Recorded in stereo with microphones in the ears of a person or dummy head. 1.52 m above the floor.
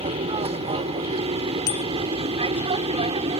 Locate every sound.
0.0 s an aircraft: 30° right (ahead or behind); by 3.4 s 35° right (ahead or behind)
1.7 s a bicycle bell: 75° left (ahead or behind)